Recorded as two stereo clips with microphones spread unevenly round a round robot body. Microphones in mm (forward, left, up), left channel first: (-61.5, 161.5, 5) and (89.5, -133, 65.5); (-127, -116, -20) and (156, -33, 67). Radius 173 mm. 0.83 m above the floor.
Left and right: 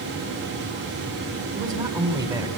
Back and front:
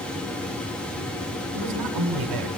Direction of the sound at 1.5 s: 20° left.